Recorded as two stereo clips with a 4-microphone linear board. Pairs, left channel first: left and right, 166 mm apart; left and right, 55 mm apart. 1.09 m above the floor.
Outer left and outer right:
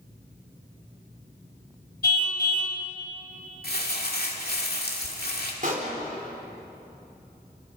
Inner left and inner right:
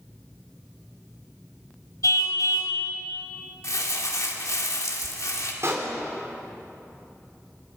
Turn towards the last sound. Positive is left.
turn(degrees=-55)  # may be behind; listen again after turning